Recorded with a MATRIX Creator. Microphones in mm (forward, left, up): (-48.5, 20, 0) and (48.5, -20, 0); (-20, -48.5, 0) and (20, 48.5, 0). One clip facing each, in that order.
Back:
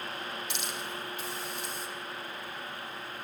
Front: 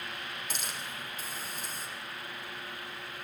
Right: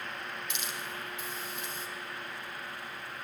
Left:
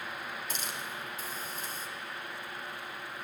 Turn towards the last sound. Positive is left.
turn(degrees=20)